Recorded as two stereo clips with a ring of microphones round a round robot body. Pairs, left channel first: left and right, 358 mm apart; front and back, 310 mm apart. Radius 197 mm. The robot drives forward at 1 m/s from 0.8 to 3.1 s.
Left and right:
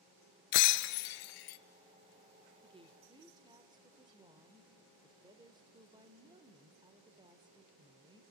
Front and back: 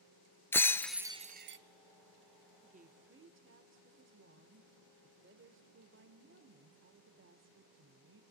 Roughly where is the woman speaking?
Behind right.